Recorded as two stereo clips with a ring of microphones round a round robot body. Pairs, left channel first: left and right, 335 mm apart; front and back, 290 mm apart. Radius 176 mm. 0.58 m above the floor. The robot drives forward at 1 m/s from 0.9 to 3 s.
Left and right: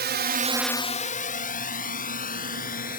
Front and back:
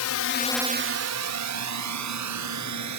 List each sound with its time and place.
0.0 s a drone: 30° right; by 3.0 s 155° left